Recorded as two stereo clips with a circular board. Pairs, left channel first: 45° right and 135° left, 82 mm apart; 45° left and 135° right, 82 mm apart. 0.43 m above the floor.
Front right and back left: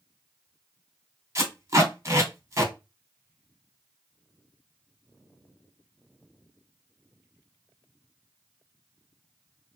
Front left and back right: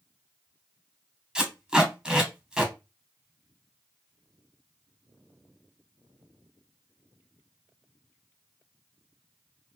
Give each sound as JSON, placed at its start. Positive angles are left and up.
{"t": 1.4, "sound": "tape being pulled", "azimuth_deg": 150, "distance_m": 1.0}